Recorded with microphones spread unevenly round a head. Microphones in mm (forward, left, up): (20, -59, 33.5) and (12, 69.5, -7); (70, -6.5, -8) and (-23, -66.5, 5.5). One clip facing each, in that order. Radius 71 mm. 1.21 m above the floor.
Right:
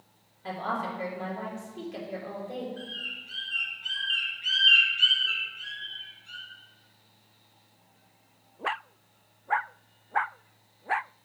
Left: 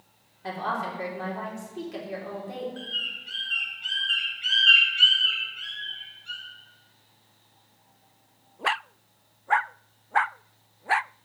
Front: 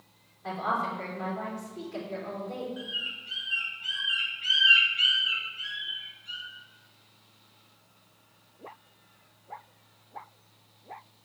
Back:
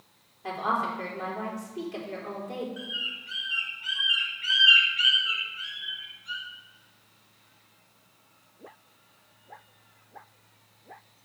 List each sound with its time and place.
0.4 s a woman speaking: 130° left, 3.5 m
2.8 s a bird: 110° left, 3 m